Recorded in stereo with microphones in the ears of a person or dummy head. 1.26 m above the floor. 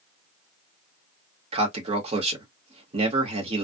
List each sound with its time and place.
1.5 s a man speaking: 30° right (ahead or behind), 1.3 m